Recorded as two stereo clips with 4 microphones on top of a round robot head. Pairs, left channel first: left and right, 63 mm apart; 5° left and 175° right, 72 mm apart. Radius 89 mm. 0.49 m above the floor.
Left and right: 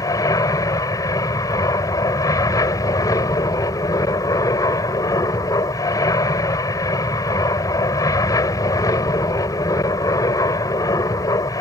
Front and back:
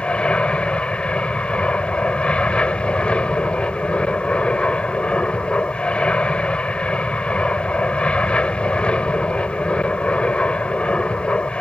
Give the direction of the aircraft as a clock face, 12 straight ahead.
9 o'clock.